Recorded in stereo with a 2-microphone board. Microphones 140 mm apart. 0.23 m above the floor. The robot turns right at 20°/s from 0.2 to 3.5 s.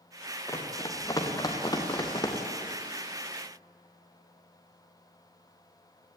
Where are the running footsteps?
20° left (ahead or behind), 4 m; by 2.4 s 30° left (ahead or behind), 4 m.